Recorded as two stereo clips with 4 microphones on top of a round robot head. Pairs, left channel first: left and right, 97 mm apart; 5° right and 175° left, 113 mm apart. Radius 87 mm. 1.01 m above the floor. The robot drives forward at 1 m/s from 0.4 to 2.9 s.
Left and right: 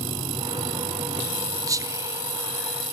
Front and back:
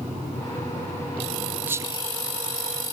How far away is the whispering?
About 0.8 m.